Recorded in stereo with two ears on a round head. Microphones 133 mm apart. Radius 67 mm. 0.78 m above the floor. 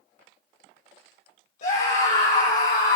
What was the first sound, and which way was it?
A scream, 55° left (ahead or behind).